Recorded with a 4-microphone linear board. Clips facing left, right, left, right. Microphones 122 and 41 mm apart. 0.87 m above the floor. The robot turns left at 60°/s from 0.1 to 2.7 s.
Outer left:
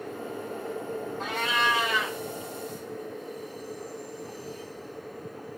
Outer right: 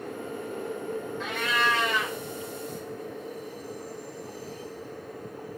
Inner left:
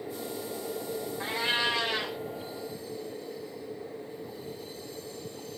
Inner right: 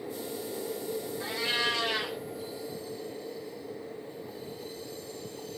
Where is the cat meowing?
45° left, 1.4 m; by 2.2 s 15° right, 1.4 m.